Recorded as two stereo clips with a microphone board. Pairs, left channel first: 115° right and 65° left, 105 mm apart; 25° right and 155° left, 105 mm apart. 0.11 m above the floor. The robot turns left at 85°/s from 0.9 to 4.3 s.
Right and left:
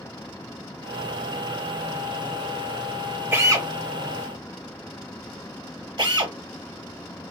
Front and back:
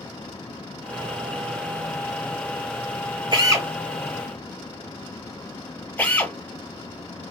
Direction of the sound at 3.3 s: 135° left.